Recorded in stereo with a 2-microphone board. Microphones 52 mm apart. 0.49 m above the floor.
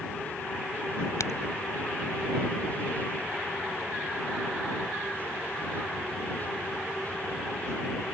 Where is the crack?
70° left (ahead or behind).